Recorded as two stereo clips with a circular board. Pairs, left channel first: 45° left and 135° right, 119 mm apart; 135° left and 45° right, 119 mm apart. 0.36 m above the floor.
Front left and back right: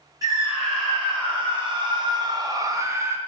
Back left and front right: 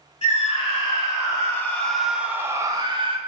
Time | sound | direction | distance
0.2 | a scream | 170° left | 2.5 m